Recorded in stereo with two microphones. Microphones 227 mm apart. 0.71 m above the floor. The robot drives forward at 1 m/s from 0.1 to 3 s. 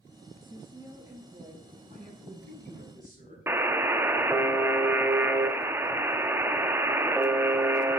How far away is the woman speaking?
About 1.0 m.